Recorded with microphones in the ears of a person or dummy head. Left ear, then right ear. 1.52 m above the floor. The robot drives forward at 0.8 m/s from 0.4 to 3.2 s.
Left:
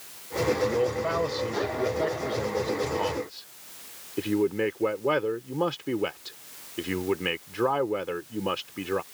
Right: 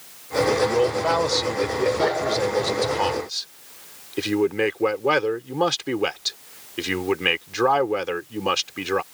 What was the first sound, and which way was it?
A man speaking, 35° right (ahead or behind).